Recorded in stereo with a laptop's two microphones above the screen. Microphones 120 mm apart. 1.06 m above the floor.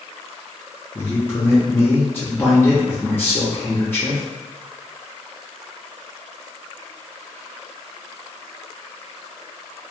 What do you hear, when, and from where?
0.9 s a man speaking: 15° left (ahead or behind), 0.7 m